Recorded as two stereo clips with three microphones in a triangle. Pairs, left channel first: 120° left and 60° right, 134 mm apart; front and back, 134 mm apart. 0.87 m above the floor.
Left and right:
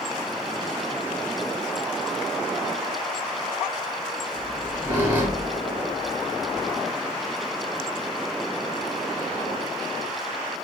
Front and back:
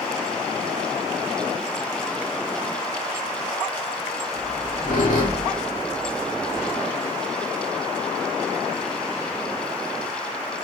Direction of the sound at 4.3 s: 15° left.